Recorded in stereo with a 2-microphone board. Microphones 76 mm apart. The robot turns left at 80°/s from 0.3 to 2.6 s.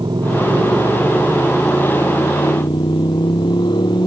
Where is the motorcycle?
70° right (ahead or behind); by 4.1 s 85° left.